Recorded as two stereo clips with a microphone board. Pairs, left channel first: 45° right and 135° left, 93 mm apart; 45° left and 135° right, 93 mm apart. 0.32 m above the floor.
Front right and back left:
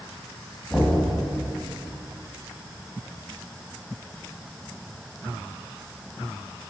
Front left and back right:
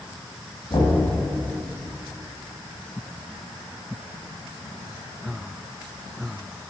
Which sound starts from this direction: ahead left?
Knocking, at 0.7 s.